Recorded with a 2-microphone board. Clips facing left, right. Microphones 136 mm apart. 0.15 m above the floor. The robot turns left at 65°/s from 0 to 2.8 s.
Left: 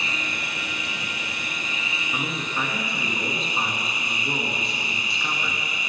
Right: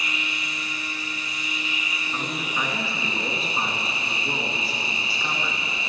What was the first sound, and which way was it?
An insect, 155° left.